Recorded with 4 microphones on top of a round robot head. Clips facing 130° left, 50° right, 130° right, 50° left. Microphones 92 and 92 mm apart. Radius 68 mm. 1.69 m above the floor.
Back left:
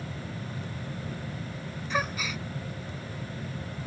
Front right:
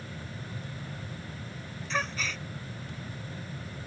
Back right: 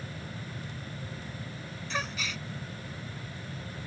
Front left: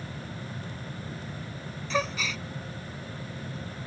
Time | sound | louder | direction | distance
1.9 | a gasp | back left 2 dB, front left 6 dB | 50° left | ?